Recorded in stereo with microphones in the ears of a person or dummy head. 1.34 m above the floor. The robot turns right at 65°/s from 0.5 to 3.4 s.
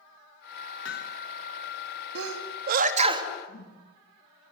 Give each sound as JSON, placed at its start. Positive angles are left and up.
{"t": 0.8, "sound": "hammering", "side_deg": 70, "distance_m": 1.3}
{"t": 2.1, "sound": "a sneeze", "side_deg": -75, "distance_m": 3.0}
{"t": 3.5, "sound": "a whoosh", "side_deg": 55, "distance_m": 5.5}